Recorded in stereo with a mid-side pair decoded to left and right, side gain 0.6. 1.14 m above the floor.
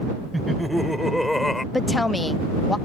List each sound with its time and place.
0.3 s laughter: 5° right; by 1.6 s 10° left
1.7 s a woman speaking: 10° left